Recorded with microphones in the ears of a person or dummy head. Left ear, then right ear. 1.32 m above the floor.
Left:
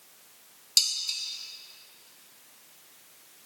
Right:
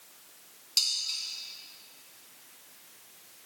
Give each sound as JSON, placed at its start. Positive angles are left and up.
{"t": 0.8, "sound": "dishes clattering", "side_deg": 15, "distance_m": 0.9}